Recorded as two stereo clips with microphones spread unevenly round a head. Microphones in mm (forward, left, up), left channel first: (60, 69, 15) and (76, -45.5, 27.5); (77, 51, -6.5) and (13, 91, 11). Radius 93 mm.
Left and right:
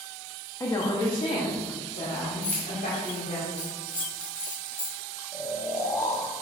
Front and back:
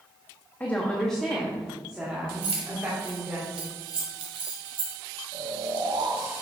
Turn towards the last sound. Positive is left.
turn(degrees=160)